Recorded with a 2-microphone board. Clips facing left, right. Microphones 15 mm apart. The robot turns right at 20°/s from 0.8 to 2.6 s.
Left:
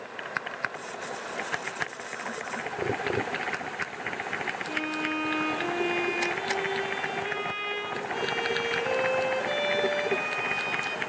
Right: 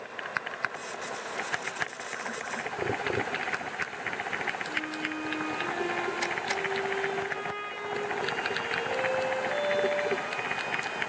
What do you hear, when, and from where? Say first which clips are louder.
4.7 s a violin: left 3 dB; 60° left (ahead or behind), 5 m